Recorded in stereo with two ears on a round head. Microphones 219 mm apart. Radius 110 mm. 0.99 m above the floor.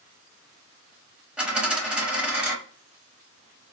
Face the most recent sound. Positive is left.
turn(degrees=-5)  # may be behind; listen again after turning